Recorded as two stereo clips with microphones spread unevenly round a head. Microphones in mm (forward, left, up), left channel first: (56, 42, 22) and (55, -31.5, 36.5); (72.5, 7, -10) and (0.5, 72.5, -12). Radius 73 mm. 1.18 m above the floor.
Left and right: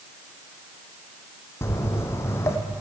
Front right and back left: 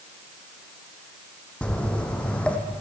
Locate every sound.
1.6 s footsteps: 35° left, 3 m